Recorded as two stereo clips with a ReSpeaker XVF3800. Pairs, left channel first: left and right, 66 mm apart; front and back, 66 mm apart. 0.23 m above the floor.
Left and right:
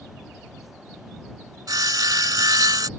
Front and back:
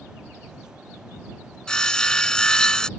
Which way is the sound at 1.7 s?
80° right.